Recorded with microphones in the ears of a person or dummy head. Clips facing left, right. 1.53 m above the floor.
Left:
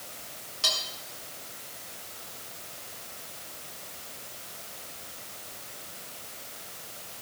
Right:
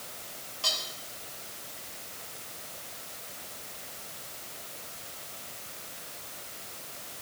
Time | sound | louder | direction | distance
0.6 | cutlery clinking | left 2 dB | 25° left (ahead or behind) | 4 m